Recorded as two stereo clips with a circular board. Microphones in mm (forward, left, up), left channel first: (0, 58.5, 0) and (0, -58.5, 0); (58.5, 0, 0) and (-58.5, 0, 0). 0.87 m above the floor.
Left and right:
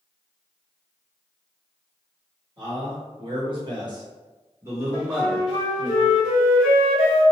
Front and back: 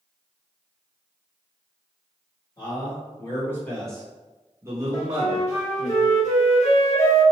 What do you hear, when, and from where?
2.6 s a man speaking: 50° right, 1.4 m; by 5.9 s straight behind, 1.2 m
4.9 s a flute: 5° right, 1.1 m